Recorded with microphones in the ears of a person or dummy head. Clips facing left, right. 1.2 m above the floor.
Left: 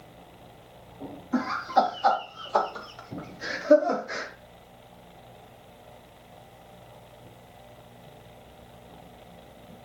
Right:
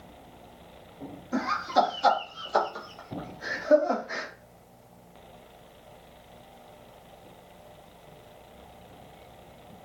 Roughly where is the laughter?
Right.